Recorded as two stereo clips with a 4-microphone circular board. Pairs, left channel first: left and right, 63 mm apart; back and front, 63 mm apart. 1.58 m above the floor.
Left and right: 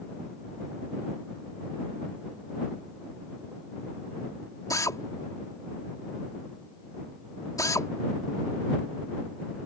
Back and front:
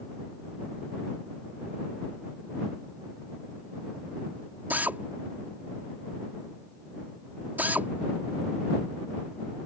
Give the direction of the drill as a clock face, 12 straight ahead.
10 o'clock.